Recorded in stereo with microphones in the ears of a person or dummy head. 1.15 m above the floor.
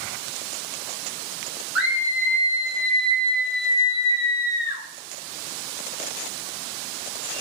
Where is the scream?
Centre (ahead or behind), 1.1 m; by 4.8 s 80° left, 1.4 m.